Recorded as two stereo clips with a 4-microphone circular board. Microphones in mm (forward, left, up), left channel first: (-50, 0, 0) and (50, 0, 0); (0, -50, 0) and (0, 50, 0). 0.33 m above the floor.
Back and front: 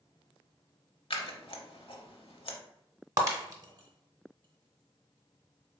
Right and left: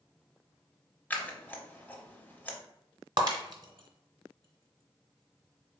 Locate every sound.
1.1 s scissors: 160° right, 0.8 m
3.2 s breaking glass: 50° left, 0.8 m